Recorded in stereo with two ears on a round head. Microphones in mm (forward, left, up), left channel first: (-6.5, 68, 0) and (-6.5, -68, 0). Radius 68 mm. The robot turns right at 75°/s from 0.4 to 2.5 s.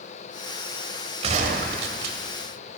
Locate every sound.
1.2 s a gunshot: 135° right, 1.5 m; by 2.2 s 65° right, 1.5 m